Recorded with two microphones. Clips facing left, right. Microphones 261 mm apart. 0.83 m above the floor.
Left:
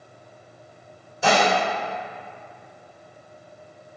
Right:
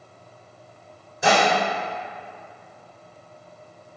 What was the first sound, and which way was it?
Dishes clattering, 15° right (ahead or behind).